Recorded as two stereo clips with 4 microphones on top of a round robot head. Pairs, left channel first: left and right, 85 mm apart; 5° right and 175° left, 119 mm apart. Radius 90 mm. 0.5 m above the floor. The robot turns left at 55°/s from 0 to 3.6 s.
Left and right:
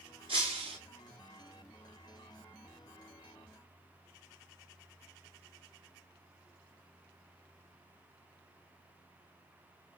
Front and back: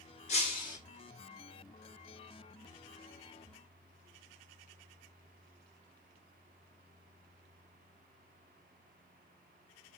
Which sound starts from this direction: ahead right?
Breaking glass, at 0.3 s.